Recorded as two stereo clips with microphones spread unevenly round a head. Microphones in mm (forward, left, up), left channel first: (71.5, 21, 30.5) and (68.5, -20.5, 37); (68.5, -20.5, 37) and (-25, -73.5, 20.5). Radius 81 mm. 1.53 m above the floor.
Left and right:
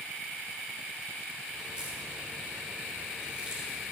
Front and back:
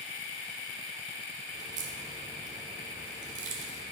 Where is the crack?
170° right, 2.0 m.